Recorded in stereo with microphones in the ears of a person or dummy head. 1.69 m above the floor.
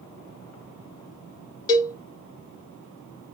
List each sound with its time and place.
1.7 s a cowbell: 20° left (ahead or behind), 1.3 m